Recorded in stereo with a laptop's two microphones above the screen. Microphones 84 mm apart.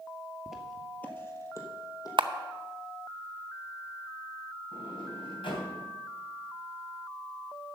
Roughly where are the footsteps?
Centre.